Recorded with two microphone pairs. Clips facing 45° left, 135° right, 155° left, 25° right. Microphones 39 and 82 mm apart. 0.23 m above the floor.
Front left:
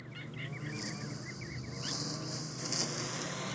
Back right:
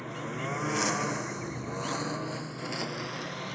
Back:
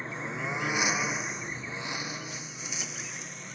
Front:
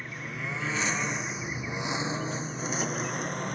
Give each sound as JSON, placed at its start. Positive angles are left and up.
{"t": 0.0, "sound": "a lawn mower", "azimuth_deg": -145}